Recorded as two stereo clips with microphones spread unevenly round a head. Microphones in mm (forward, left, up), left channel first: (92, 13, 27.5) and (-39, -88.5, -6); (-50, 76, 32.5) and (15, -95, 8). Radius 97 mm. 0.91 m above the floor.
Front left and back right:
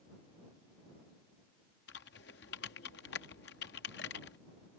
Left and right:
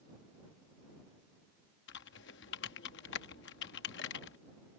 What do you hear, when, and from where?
1.9 s typing on a keyboard: 80° left